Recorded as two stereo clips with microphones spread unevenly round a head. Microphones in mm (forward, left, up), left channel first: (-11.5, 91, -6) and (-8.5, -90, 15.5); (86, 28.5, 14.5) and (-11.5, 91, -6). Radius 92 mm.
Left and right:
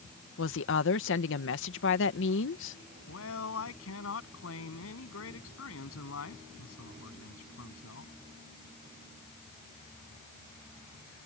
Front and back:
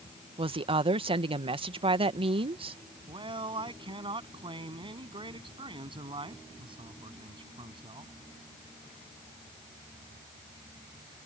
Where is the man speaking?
100° left.